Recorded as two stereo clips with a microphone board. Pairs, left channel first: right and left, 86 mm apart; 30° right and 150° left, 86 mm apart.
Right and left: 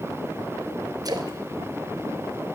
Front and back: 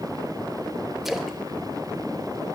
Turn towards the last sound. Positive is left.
turn(degrees=65)